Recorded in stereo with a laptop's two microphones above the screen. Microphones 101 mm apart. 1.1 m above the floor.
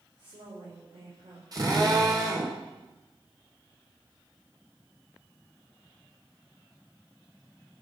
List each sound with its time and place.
0.2 s a woman speaking: 80° right, 4 m
1.5 s a drill: 45° right (ahead or behind), 3 m